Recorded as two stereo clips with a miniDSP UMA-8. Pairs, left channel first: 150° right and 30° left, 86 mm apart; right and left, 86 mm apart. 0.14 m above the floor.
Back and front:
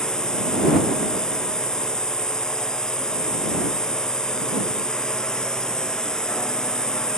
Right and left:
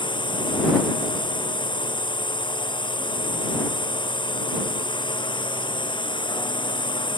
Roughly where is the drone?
Right.